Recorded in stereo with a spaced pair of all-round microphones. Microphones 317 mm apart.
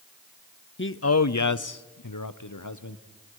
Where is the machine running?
No machine running in this recording.